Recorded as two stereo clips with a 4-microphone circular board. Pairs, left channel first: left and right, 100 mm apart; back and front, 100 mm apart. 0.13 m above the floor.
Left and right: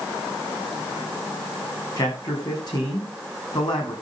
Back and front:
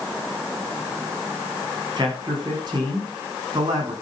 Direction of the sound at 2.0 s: 45° left.